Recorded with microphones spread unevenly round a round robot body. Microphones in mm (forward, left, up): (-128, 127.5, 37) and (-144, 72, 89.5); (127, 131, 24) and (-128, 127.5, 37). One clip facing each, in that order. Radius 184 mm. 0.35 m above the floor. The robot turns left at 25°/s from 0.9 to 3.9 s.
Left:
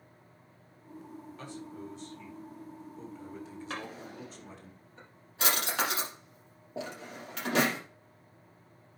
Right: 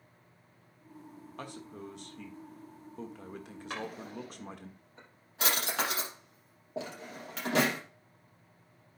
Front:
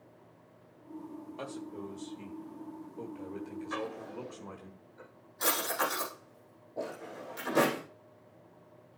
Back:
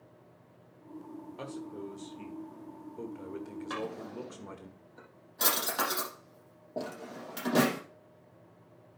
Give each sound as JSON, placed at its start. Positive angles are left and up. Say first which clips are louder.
{"t": 1.4, "sound": "a man speaking", "louder": "right 1 dB, back 1 dB", "azimuth_deg": -80, "distance_m": 1.5}
{"t": 3.7, "sound": "a drawer", "louder": "right 3 dB, back 1 dB", "azimuth_deg": 175, "distance_m": 6.0}